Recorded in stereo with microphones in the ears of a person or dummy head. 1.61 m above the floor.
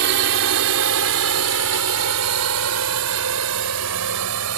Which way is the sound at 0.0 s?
65° right (ahead or behind).